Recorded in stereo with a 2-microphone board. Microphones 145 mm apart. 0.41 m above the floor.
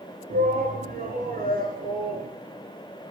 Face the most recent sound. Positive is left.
turn(degrees=-80)